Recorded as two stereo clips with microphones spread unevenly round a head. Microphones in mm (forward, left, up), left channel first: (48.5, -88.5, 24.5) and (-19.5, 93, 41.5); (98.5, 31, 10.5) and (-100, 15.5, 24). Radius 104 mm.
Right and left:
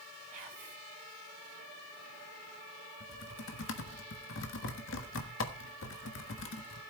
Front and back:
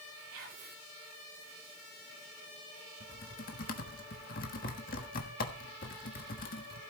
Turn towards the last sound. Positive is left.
turn(degrees=-45)